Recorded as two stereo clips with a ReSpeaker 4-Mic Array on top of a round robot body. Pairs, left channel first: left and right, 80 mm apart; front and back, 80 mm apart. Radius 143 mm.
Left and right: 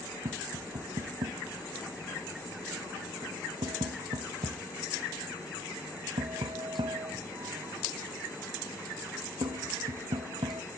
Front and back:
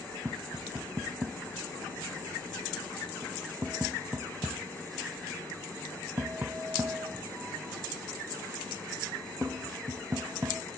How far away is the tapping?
About 0.6 m.